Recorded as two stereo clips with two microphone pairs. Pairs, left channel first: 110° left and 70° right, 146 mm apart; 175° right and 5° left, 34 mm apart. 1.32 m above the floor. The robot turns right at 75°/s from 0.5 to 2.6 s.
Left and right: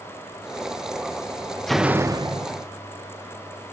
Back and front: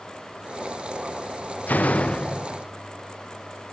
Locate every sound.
1.7 s a door slam: 160° right, 0.6 m; by 2.7 s 90° right, 0.6 m